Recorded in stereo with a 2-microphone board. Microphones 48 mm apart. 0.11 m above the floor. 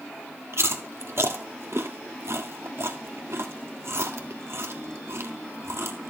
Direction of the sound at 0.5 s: 65° right (ahead or behind).